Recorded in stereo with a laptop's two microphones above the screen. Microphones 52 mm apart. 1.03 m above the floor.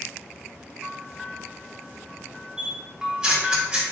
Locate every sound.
0.8 s a bell: 15° right (ahead or behind), 0.7 m
2.6 s a camera shutter: 20° right (ahead or behind), 1.8 m